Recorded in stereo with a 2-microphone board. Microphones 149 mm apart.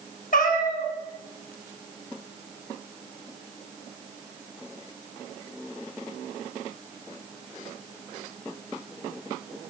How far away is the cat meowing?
About 0.9 m.